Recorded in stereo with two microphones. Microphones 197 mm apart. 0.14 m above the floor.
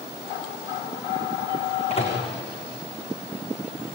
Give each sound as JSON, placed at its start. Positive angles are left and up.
{"t": 1.9, "sound": "a microwave", "side_deg": 30, "distance_m": 7.0}